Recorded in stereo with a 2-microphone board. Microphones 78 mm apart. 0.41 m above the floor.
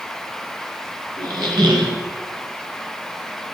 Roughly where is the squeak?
Right.